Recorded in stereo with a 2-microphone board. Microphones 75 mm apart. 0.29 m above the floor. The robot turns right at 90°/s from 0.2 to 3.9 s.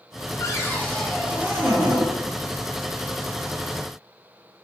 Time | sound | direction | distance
0.4 | a cupboard door | 115° left | 0.6 m